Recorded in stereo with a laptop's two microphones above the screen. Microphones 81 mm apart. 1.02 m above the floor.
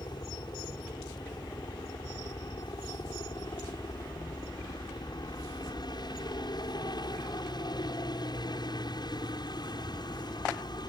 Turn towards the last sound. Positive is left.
turn(degrees=60)  # may be behind; listen again after turning